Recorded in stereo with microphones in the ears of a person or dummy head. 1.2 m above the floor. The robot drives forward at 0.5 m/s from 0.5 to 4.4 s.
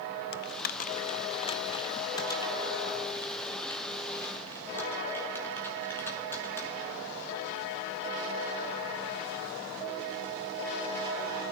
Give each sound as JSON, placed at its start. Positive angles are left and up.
{"t": 0.3, "sound": "typing on a keyboard", "side_deg": 50, "distance_m": 0.5}